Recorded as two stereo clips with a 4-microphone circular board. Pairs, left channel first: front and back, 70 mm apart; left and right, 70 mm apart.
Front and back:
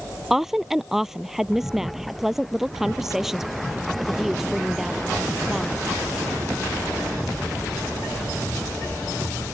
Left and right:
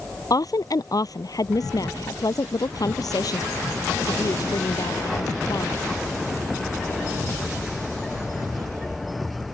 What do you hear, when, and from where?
0.3 s a woman speaking: 95° left